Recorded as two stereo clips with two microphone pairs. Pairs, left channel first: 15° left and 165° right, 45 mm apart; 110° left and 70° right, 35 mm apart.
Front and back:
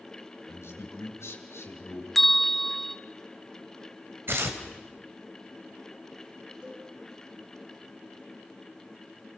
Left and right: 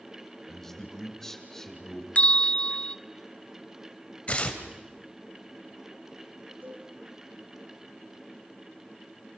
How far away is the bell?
About 0.7 m.